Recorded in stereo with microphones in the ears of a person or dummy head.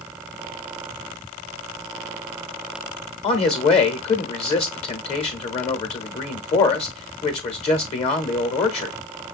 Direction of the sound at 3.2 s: 35° left (ahead or behind).